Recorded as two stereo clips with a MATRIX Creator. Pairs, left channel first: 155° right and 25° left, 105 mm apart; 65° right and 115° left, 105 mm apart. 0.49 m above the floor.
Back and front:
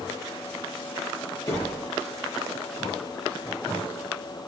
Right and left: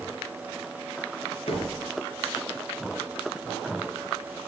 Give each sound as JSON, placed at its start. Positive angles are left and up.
{"t": 1.5, "sound": "a door slam", "azimuth_deg": -100, "distance_m": 8.0}